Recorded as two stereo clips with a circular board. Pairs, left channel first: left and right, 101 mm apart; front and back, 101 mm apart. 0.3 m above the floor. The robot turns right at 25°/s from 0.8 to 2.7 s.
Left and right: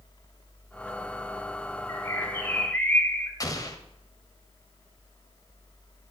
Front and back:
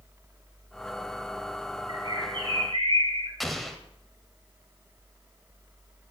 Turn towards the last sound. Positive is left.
turn(degrees=90)